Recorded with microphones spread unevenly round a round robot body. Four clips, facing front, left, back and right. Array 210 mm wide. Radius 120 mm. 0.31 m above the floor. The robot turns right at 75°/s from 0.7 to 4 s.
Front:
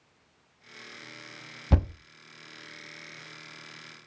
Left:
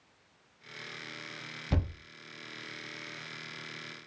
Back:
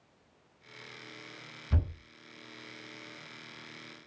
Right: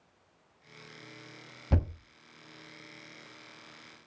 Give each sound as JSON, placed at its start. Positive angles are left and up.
{"t": 1.7, "sound": "a thud", "azimuth_deg": -15, "distance_m": 0.6}